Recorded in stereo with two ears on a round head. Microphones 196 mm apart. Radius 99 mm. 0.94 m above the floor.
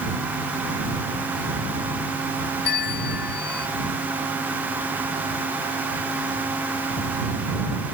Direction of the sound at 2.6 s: 45° left (ahead or behind).